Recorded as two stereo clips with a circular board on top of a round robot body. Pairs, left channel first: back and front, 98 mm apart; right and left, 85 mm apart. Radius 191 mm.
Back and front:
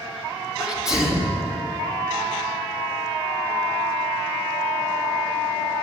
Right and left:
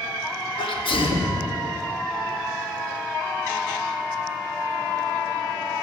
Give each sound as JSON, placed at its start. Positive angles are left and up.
{"t": 0.6, "sound": "a sneeze", "azimuth_deg": -85, "distance_m": 2.5}